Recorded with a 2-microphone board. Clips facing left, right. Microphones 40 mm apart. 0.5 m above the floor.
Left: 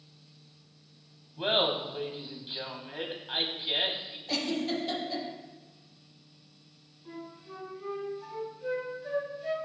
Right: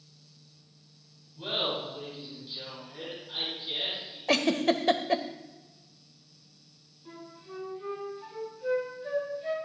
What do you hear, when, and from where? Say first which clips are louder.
1.4 s laughter: left 4 dB; 50° left (ahead or behind), 3 m
4.3 s a giggle: right 6 dB; 80° right, 0.8 m
7.0 s a flute: left 2 dB; 5° right (ahead or behind), 4 m